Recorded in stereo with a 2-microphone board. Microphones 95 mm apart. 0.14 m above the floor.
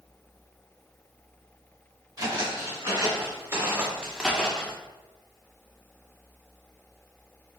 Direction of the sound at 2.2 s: 40° right (ahead or behind).